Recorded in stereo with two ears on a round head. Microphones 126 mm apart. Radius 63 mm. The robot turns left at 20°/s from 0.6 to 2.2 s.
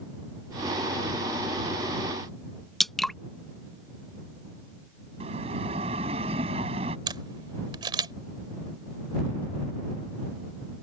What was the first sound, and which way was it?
Dripping, centre (ahead or behind).